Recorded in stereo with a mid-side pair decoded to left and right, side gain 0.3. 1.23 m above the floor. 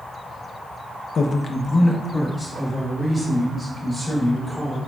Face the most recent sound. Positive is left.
turn(degrees=20)